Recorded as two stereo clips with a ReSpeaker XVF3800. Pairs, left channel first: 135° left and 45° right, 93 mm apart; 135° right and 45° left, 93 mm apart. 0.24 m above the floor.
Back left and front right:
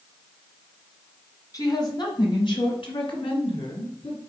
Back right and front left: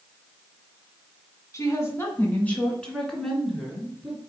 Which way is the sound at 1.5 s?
175° left.